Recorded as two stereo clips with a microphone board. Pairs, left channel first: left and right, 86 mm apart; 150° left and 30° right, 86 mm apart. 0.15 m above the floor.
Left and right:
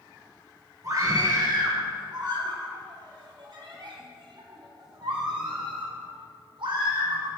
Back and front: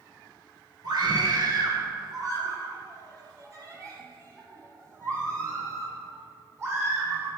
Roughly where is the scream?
Ahead right.